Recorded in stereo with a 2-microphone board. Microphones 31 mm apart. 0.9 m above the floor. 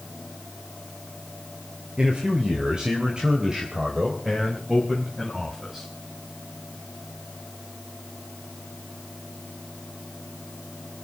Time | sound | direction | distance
2.0 | a man speaking | 35° right (ahead or behind) | 2.5 m